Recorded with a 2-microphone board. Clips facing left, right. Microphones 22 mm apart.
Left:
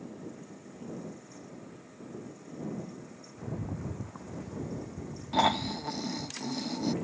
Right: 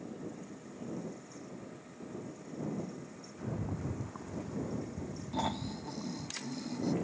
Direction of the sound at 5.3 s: 45° left (ahead or behind).